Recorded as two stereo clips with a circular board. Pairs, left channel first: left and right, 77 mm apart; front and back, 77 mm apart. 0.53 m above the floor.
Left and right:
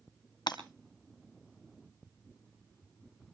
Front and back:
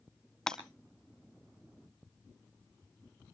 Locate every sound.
0.5 s breaking glass: 80° left, 2.0 m